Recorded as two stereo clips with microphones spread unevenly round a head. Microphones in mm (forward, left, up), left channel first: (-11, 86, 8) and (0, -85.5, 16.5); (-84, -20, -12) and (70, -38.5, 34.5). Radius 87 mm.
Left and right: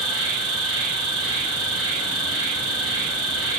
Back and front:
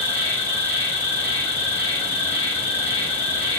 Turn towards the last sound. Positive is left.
turn(degrees=-100)